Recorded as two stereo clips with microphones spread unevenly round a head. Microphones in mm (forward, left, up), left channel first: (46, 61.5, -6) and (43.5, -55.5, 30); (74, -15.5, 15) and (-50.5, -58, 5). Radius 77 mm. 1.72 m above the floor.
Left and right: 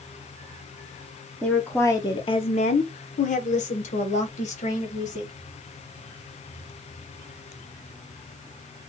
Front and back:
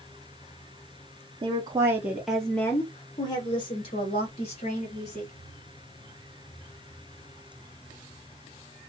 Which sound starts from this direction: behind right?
A woman speaking, at 1.4 s.